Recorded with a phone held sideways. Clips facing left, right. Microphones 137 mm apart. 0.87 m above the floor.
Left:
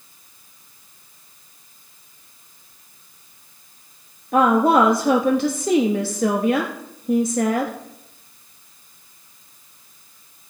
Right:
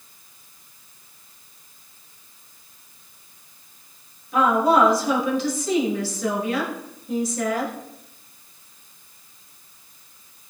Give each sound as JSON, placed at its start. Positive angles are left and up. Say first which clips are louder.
{"t": 4.3, "sound": "a woman speaking", "louder": "left 3 dB", "side_deg": 65, "distance_m": 1.2}